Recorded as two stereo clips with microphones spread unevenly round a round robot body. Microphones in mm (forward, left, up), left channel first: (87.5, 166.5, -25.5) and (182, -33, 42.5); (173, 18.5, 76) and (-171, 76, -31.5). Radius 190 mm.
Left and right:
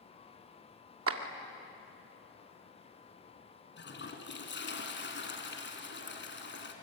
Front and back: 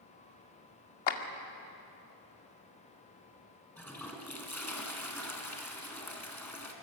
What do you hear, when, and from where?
1.1 s a clap: 40° right, 2 m
3.8 s a toilet flushing: 75° left, 3.5 m